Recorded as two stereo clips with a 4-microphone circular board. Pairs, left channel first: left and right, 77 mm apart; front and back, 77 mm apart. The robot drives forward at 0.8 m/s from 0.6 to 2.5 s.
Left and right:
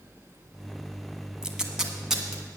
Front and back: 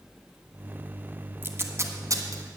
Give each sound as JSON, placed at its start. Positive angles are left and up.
{"t": 1.4, "sound": "tape being pulled", "azimuth_deg": -160, "distance_m": 1.1}